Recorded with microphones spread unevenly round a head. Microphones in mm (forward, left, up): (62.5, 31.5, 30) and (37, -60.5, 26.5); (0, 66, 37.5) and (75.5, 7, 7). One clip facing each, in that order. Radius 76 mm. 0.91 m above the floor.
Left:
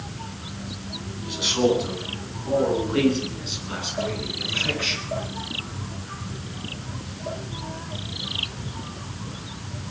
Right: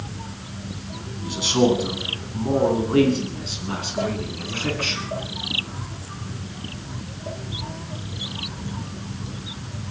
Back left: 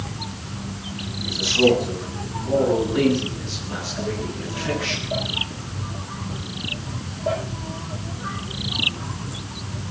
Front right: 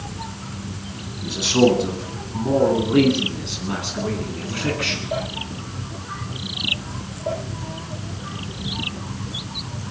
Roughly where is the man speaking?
Ahead right.